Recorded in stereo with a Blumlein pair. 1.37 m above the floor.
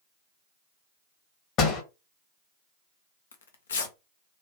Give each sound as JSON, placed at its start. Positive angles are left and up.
{"t": 1.6, "sound": "a door slam", "azimuth_deg": 35, "distance_m": 1.3}
{"t": 3.3, "sound": "tearing paper", "azimuth_deg": 65, "distance_m": 0.7}